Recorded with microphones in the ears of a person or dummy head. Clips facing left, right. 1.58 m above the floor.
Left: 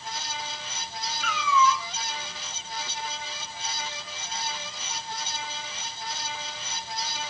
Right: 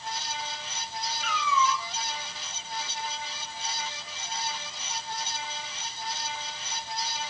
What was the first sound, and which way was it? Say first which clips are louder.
A cat meowing: left 4 dB; 60° left (ahead or behind).